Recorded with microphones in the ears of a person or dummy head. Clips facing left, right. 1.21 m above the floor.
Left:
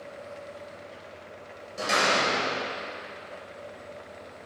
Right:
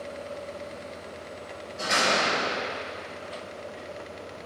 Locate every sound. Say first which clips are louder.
1.8 s a door slam: even; 60° left (ahead or behind), 3.5 m